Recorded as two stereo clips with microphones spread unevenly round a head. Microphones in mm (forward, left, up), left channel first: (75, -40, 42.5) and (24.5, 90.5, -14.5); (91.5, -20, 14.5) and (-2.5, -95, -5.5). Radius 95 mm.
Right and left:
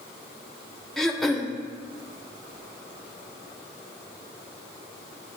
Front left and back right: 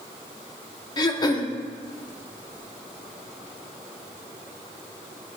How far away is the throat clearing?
About 0.9 m.